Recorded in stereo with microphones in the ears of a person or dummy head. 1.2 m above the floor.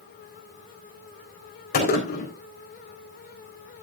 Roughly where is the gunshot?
Left.